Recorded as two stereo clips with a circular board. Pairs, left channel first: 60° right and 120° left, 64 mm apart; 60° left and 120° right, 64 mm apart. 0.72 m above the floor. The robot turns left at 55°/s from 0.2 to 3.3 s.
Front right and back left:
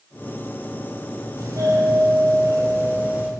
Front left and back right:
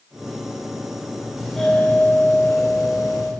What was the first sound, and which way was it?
A doorbell, 155° left.